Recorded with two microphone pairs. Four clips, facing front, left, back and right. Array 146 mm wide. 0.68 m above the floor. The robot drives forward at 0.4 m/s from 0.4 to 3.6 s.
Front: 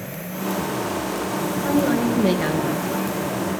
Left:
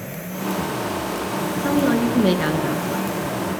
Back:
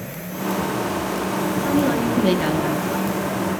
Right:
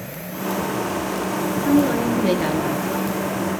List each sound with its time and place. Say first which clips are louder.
1.6 s a woman speaking: right 1 dB, front 1 dB; 90° left, 8.5 m; by 3.1 s 95° left, 8.5 m